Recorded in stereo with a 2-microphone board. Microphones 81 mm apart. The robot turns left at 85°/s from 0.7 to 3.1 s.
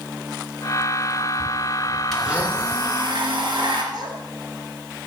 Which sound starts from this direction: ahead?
A blender, at 2.1 s.